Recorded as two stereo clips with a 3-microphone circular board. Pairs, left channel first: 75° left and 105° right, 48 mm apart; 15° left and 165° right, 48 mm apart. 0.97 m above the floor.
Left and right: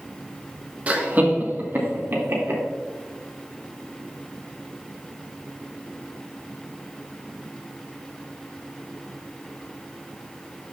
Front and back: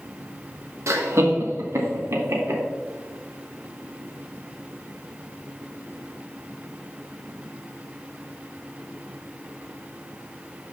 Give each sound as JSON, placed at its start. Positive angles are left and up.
{"t": 0.9, "sound": "laughter", "azimuth_deg": -165, "distance_m": 1.2}